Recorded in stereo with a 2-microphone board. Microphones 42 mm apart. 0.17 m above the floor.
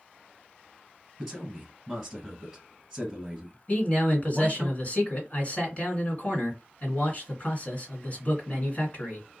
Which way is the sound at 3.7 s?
35° left (ahead or behind).